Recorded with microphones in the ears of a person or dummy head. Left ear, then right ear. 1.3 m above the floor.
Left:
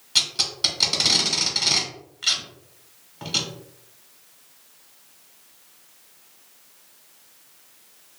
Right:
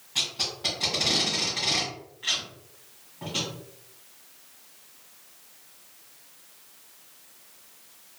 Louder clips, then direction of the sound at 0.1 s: Left 7 dB; 65° left (ahead or behind).